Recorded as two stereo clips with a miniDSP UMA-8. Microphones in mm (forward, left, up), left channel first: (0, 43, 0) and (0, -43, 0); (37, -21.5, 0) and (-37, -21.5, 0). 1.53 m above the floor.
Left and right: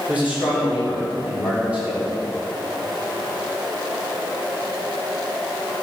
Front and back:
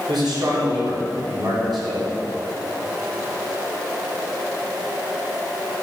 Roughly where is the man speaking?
Behind.